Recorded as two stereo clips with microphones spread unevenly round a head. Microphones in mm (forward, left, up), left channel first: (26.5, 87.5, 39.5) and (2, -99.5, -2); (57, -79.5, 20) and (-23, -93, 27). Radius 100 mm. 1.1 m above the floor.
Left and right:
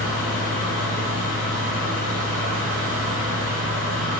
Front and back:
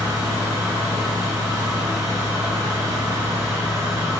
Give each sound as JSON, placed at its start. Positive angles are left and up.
{"t": 0.0, "sound": "a fan", "azimuth_deg": -150, "distance_m": 0.9}